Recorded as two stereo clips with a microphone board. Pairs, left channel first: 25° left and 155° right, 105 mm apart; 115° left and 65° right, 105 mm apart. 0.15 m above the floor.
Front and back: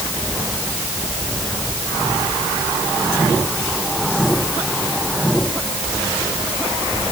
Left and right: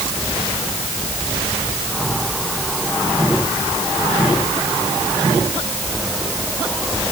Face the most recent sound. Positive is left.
No sound to turn to.